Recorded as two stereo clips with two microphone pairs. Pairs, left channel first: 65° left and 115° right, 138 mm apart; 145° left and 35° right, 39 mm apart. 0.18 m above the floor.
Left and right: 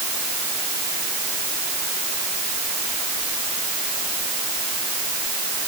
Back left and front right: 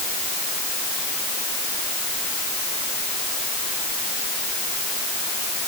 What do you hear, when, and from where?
Only background noise.